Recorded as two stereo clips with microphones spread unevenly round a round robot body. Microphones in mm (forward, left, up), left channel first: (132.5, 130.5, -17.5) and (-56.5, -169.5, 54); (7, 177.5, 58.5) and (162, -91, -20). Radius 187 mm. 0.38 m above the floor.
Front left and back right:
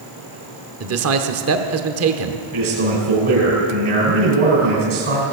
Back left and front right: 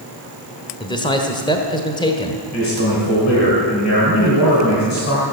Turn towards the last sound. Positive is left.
turn(degrees=180)